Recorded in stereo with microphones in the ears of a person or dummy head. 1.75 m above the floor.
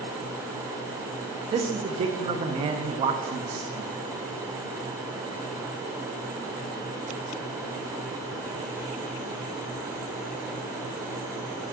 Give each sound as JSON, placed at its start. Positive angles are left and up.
{"t": 1.5, "sound": "a man speaking", "side_deg": -30, "distance_m": 0.6}